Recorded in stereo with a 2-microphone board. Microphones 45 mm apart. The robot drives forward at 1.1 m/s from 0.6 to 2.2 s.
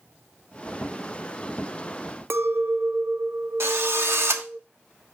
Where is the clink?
65° right (ahead or behind), 0.7 m.